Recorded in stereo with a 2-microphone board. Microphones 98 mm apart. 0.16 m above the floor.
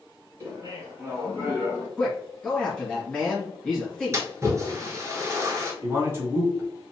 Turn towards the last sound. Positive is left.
turn(degrees=-25)  # may be behind; listen again after turning